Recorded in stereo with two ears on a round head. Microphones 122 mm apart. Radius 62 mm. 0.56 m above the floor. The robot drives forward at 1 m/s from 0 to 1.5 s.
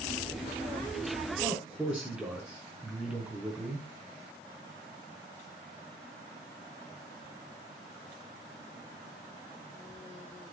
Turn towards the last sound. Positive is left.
turn(degrees=-5)  # may be behind; listen again after turning